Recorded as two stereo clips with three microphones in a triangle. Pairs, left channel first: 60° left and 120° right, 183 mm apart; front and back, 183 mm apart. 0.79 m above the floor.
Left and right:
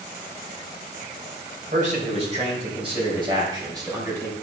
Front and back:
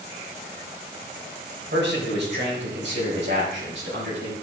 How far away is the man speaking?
About 3.5 m.